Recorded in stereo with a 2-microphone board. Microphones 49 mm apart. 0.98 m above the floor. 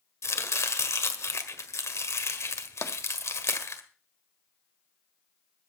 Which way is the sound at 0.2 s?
70° left (ahead or behind).